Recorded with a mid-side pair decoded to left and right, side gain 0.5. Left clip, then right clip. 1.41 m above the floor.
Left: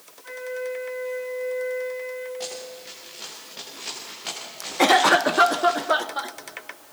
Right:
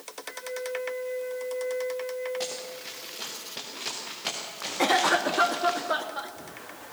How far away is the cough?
About 1.0 m.